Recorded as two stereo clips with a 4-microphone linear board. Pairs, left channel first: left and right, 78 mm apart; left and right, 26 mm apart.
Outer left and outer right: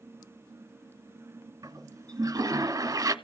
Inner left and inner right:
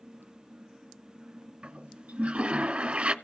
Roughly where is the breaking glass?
No breaking glass in this recording.